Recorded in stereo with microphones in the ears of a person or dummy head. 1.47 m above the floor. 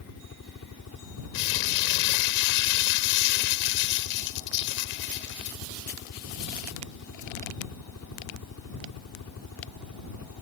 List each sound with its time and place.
0.0 s a helicopter: 75° left (ahead or behind)
1.3 s crumpling: 60° left (ahead or behind)